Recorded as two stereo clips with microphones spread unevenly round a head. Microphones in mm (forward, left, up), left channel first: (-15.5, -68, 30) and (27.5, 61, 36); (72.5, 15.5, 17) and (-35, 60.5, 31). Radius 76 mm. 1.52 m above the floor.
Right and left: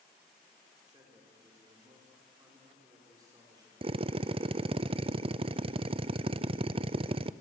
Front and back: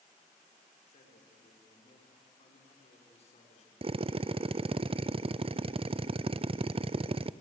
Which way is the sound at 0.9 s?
5° left.